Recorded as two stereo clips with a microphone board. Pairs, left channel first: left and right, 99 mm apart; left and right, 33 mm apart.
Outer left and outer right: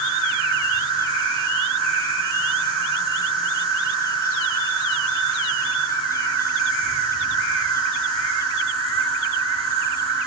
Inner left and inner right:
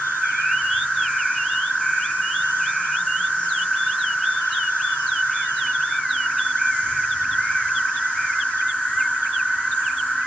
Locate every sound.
0.0 s an insect: 70° right (ahead or behind), 6.5 m